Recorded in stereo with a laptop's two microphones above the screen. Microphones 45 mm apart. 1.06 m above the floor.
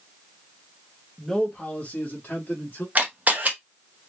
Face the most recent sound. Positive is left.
turn(degrees=-35)  # may be behind; listen again after turning